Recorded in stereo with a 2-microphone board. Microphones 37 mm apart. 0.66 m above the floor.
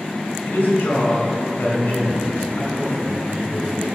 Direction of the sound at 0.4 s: 65° left (ahead or behind).